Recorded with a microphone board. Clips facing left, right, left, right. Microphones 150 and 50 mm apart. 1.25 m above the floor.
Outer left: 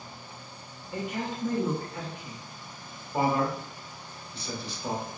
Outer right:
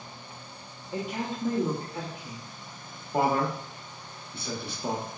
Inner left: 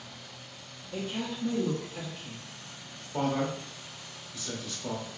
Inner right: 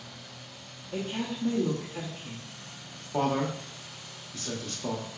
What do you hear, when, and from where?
0.9 s a woman speaking: 25° right (ahead or behind), 0.8 m
3.1 s a man speaking: 55° right (ahead or behind), 1.0 m